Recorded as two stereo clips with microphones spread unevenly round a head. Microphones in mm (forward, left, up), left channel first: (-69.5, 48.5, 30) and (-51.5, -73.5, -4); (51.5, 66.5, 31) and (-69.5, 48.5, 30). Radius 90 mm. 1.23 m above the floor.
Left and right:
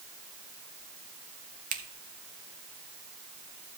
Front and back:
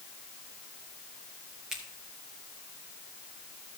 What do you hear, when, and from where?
1.7 s a finger snap: 85° right, 1.1 m